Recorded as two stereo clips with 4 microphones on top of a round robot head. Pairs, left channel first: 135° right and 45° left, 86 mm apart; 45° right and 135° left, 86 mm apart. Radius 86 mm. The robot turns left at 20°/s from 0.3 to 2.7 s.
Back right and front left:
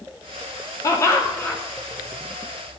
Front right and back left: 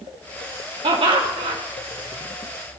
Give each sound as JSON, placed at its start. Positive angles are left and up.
{"t": 0.8, "sound": "laughter", "azimuth_deg": 165, "distance_m": 3.0}